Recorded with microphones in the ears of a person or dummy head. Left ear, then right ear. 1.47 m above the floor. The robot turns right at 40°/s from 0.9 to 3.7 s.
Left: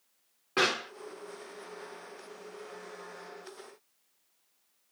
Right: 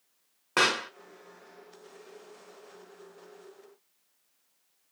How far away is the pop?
About 0.7 m.